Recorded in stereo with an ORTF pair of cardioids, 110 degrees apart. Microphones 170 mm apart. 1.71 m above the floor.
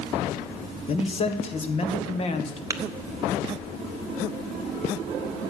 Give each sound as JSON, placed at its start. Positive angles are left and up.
{"t": 0.9, "sound": "a man speaking", "azimuth_deg": 35, "distance_m": 1.6}
{"t": 2.7, "sound": "tapping", "azimuth_deg": -20, "distance_m": 1.0}